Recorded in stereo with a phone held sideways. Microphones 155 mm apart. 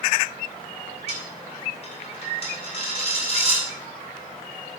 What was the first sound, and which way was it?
A dropped coin, 40° left (ahead or behind).